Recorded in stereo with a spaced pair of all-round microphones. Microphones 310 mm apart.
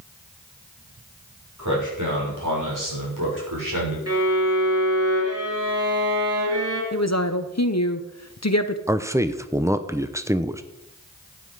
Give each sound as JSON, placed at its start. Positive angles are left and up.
{"t": 1.6, "sound": "a man speaking", "side_deg": -60, "distance_m": 6.0}
{"t": 4.1, "sound": "a violin", "side_deg": -45, "distance_m": 4.5}
{"t": 6.9, "sound": "a woman speaking", "side_deg": 50, "distance_m": 0.9}
{"t": 8.9, "sound": "a man speaking", "side_deg": -10, "distance_m": 0.7}